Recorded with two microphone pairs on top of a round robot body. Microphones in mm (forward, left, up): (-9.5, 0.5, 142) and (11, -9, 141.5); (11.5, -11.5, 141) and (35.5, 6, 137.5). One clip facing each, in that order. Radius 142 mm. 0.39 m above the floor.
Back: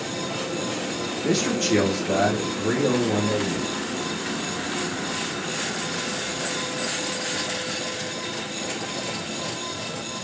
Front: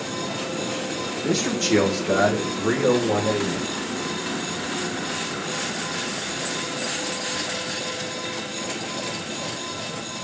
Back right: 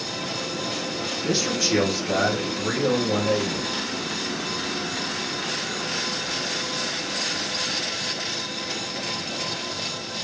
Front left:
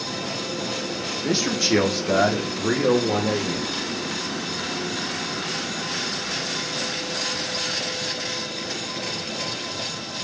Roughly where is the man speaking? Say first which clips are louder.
Even, front left 2 dB; left.